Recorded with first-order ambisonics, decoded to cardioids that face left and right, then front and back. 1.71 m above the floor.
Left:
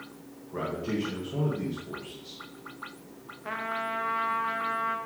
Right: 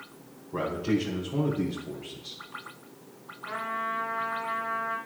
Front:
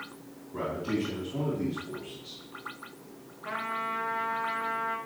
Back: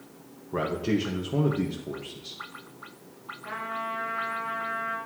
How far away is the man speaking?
About 1.8 m.